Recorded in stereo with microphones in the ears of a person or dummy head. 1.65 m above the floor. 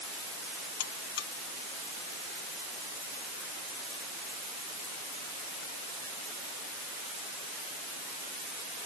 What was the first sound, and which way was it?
A buzzer, 70° left (ahead or behind).